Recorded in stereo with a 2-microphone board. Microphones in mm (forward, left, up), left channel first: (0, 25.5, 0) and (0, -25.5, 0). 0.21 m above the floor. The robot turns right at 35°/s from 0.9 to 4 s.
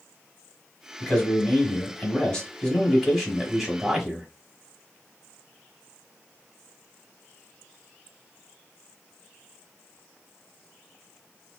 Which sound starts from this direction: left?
A man speaking, at 1.0 s.